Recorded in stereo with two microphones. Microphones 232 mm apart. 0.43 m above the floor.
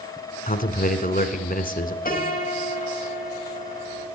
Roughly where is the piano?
Left.